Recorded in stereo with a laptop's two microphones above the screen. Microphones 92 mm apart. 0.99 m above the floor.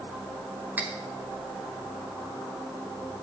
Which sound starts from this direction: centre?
Cutlery clinking, at 0.8 s.